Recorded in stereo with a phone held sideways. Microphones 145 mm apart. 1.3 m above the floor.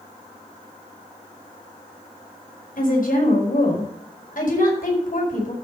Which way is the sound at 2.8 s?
70° left (ahead or behind).